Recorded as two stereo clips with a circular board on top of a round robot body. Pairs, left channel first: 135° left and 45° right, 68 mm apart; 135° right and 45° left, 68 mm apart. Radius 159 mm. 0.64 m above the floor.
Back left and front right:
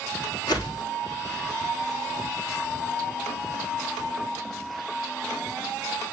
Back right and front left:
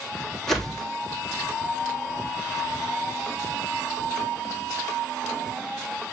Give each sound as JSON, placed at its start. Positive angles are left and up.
{"t": 0.5, "sound": "a whoosh", "azimuth_deg": 140, "distance_m": 3.0}